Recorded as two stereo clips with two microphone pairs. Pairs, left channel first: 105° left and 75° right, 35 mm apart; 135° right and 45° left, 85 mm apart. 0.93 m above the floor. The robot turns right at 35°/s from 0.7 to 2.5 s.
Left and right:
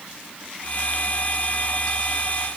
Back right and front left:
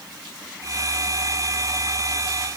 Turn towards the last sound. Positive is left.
No sound to turn to.